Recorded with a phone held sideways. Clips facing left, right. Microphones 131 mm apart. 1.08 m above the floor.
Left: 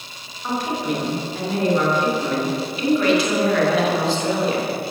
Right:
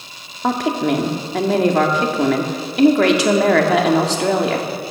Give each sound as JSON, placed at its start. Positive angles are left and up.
{"t": 0.4, "sound": "a woman speaking", "side_deg": -85, "distance_m": 2.0}